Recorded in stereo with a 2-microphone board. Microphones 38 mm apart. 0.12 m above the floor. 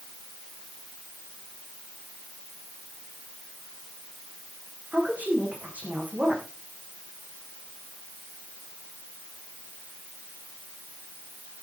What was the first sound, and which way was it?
A woman speaking, 45° right (ahead or behind).